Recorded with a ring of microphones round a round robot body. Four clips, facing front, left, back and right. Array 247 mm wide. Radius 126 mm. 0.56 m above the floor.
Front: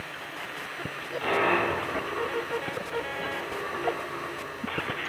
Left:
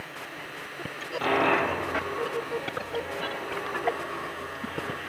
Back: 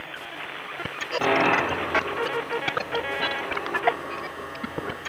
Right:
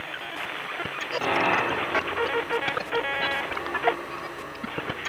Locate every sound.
1.2 s a dropped coin: 175° right, 9.5 m